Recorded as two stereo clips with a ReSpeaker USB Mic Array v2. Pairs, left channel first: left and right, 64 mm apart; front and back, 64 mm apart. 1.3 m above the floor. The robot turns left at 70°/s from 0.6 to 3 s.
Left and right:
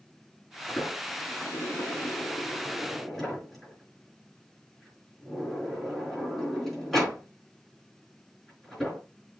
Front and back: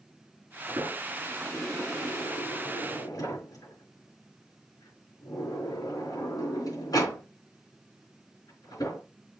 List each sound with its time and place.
0.7 s a sliding door: 160° left, 5.5 m; by 9.0 s straight ahead, 5.5 m